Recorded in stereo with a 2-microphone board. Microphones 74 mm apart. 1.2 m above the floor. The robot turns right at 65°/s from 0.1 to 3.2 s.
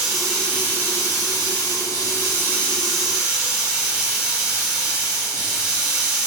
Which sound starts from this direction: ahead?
Running water, at 0.0 s.